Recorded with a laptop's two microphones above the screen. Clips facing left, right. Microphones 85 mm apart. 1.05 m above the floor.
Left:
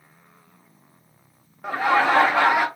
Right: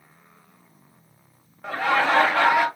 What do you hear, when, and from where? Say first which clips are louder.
1.6 s laughter: left 2 dB; 10° left (ahead or behind), 0.8 m